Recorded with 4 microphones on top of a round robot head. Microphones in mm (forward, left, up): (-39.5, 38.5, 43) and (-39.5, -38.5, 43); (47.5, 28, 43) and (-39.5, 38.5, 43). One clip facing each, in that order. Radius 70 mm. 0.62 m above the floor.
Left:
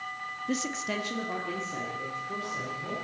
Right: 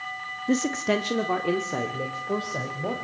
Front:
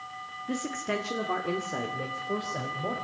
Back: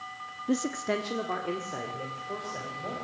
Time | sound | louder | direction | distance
0.5 | a man speaking | right 9 dB, back 3 dB | 135° right | 1.1 m